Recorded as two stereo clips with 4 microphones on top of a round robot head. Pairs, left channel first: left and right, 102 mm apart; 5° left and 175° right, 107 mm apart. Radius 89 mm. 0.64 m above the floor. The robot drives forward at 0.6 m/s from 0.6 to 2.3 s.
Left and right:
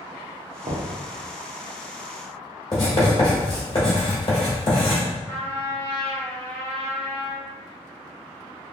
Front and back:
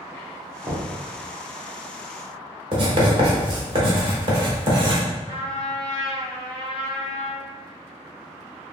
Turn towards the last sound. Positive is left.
turn(degrees=-140)